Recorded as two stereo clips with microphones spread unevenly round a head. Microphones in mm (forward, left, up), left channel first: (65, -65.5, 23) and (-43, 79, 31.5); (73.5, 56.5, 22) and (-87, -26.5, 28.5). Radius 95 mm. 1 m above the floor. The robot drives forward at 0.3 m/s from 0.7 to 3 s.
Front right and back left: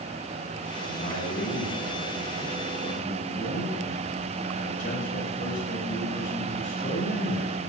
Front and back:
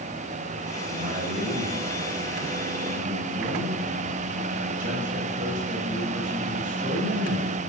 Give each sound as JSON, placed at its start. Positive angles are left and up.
{"t": 0.9, "sound": "a man speaking", "azimuth_deg": -95, "distance_m": 6.0}